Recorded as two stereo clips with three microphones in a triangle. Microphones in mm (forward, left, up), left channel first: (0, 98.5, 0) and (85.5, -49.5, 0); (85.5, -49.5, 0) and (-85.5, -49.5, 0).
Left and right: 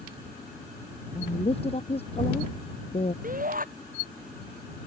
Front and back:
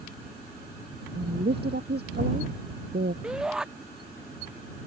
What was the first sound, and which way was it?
A woman speaking, 170° left.